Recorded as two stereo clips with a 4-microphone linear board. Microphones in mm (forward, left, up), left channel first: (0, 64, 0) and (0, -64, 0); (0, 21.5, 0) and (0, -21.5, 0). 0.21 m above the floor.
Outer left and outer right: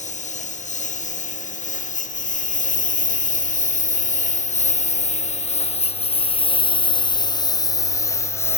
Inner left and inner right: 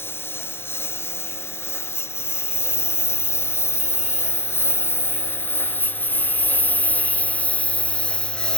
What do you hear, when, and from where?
0.0 s a lawn mower: 70° left (ahead or behind); by 8.6 s 20° left (ahead or behind)